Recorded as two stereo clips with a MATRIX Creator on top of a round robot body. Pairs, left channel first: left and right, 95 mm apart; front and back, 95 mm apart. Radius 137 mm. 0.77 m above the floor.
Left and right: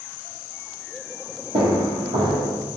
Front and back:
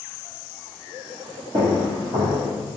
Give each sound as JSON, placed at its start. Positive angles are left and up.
{"t": 1.5, "sound": "footsteps", "azimuth_deg": -125, "distance_m": 1.1}